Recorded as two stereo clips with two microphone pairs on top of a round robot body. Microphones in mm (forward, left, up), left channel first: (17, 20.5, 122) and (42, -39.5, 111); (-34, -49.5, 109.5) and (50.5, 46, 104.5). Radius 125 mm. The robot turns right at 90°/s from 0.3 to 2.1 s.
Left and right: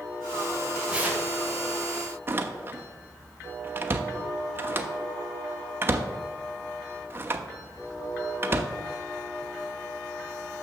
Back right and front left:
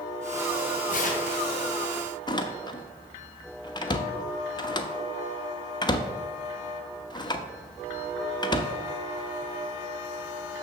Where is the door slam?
90° right, 1.0 m.